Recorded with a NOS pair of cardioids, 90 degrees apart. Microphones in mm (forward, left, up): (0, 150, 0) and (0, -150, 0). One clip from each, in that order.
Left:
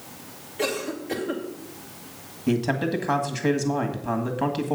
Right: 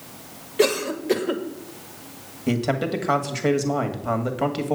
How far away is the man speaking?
About 1.8 m.